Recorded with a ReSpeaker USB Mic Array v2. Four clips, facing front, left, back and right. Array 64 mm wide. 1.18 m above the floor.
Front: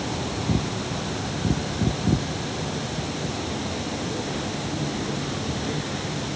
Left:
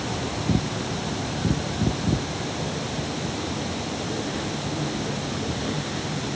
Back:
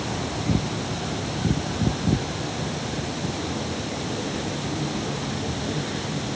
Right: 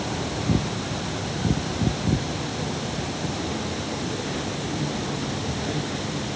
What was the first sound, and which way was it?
Only background noise.